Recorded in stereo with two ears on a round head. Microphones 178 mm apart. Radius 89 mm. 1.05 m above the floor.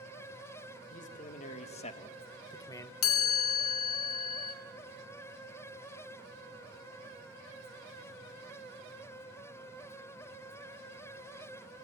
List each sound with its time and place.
0.9 s a man speaking: 40° left (ahead or behind), 1.6 m; by 2.9 s 10° left (ahead or behind), 0.7 m
3.0 s a chime: 80° left, 1.8 m